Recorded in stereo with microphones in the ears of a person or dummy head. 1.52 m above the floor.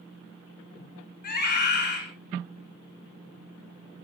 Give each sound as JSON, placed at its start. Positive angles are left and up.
{"t": 1.2, "sound": "a scream", "side_deg": 50, "distance_m": 6.5}